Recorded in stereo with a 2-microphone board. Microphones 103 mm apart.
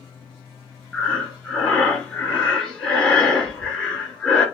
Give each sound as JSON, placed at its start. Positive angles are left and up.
{"t": 0.9, "sound": "breathing", "side_deg": 10, "distance_m": 2.0}